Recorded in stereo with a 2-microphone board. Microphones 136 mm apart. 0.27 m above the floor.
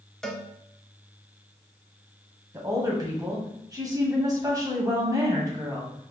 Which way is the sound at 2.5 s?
25° right (ahead or behind).